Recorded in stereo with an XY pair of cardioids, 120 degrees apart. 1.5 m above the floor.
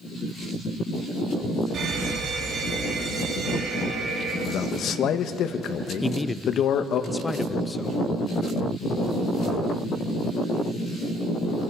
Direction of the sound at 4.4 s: 60° left.